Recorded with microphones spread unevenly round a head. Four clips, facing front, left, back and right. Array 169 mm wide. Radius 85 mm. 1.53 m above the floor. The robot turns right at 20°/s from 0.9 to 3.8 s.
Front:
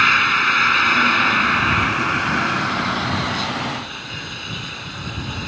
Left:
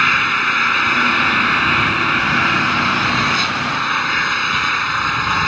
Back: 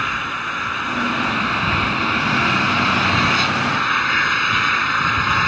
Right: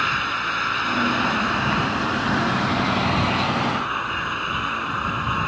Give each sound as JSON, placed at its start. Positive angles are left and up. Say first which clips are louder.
{"t": 0.0, "sound": "an engine running", "louder": "left 6 dB, front 6 dB", "azimuth_deg": 55}